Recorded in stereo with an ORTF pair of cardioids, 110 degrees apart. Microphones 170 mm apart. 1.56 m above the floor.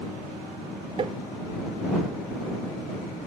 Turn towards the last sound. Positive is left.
turn(degrees=-35)